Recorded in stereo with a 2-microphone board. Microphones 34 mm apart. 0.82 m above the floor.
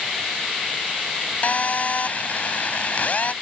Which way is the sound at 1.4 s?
50° left (ahead or behind).